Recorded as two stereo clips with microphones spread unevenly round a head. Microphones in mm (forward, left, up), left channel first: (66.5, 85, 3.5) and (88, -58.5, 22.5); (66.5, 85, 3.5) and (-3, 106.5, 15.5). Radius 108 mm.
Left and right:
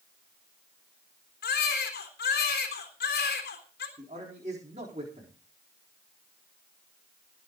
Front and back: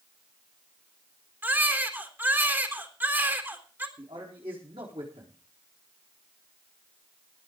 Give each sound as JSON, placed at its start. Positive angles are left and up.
{"t": 1.4, "sound": "a baby crying", "azimuth_deg": 100, "distance_m": 3.5}
{"t": 4.0, "sound": "a man speaking", "azimuth_deg": -145, "distance_m": 4.0}